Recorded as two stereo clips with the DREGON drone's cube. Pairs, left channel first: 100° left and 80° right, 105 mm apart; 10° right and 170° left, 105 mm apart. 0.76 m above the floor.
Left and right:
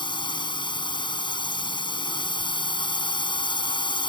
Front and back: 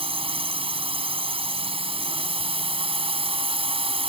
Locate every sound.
0.0 s a drone: 140° left